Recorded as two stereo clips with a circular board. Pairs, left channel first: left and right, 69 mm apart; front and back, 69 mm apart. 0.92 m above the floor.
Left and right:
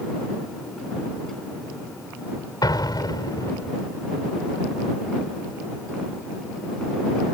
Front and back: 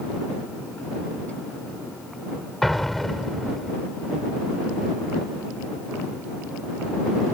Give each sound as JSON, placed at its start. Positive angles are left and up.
{"t": 2.6, "sound": "an explosion", "azimuth_deg": 90}